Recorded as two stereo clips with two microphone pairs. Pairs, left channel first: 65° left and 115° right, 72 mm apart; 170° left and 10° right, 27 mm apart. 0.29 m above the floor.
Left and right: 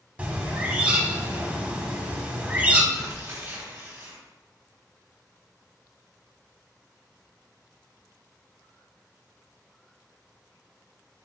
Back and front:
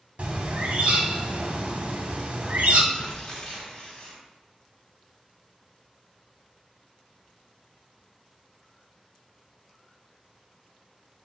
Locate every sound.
0.2 s a bird: 45° right, 0.6 m
2.9 s tearing paper: 150° right, 1.1 m